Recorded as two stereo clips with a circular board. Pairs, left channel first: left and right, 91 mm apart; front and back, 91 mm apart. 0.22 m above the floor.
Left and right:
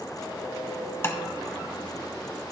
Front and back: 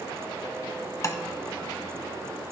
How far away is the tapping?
About 0.8 m.